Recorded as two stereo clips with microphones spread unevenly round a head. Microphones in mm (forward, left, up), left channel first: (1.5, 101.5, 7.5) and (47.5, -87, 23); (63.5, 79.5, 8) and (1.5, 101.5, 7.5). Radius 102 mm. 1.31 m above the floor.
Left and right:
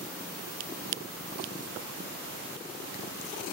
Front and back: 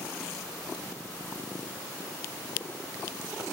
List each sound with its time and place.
Only background noise.